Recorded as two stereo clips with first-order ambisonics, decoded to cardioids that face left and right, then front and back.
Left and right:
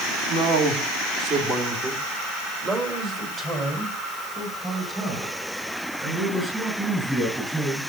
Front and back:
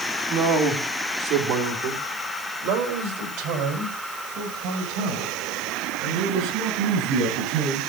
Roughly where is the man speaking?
Behind right.